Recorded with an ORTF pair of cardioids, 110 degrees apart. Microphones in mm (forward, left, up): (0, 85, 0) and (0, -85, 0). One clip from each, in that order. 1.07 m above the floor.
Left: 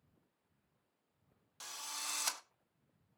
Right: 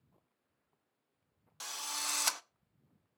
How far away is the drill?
About 0.6 m.